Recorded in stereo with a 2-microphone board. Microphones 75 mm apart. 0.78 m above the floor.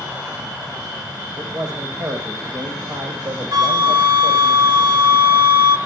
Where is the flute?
60° right (ahead or behind), 1.3 m.